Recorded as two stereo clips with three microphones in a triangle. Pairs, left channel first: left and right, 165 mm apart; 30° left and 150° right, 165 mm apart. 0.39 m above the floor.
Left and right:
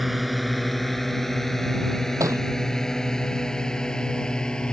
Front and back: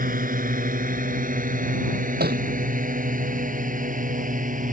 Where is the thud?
160° right.